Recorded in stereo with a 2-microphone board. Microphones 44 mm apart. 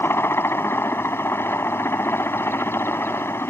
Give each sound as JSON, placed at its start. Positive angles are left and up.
{"t": 0.0, "sound": "a helicopter", "side_deg": 65}